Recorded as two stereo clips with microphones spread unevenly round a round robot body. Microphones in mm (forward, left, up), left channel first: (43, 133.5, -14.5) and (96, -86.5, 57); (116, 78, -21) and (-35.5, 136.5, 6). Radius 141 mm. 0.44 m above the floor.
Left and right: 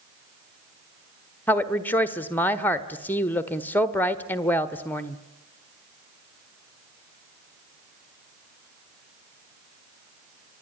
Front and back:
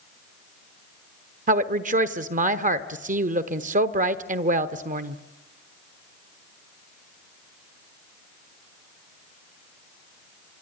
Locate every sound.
1.5 s a woman speaking: 155° left, 1.1 m